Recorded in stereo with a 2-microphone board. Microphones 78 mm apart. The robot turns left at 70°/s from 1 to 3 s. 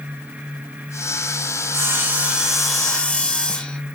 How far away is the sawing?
About 0.6 m.